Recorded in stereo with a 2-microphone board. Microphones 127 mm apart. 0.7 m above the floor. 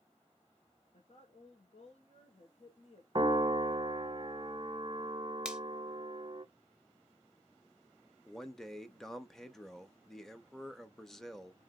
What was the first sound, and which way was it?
A woman speaking, 55° left (ahead or behind).